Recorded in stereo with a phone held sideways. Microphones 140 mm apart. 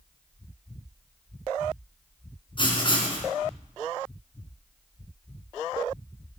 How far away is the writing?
About 3.5 m.